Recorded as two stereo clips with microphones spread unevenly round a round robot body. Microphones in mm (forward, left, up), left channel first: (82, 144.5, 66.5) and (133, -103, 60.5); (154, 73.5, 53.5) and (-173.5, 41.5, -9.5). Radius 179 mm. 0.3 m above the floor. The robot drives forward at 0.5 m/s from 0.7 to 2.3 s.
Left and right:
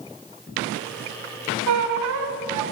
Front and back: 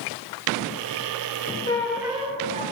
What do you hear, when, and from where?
1.7 s a squeak: 70° right, 0.6 m; by 2.6 s 100° right, 0.6 m